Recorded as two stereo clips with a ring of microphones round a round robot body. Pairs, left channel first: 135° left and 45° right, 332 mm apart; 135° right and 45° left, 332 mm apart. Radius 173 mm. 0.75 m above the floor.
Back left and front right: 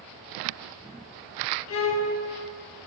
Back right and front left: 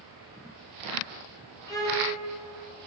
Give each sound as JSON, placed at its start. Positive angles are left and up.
{"t": 1.7, "sound": "a violin", "azimuth_deg": 150, "distance_m": 1.0}